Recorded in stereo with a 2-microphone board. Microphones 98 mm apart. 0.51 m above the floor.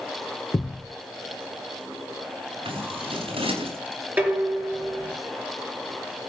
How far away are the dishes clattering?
About 5 m.